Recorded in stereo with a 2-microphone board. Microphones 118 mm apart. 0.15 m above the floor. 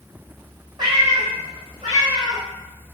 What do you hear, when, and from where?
0.8 s a cat meowing: 40° right (ahead or behind), 0.7 m; by 2.4 s 30° right (ahead or behind), 1.9 m